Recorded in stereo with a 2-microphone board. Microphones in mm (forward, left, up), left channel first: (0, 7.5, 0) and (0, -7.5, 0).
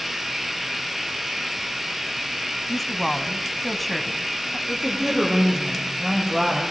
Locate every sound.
0.0 s running water: 10° right (ahead or behind), 4.5 m
2.7 s a woman speaking: 10° left (ahead or behind), 1.5 m
4.7 s a woman speaking: 10° right (ahead or behind), 7.5 m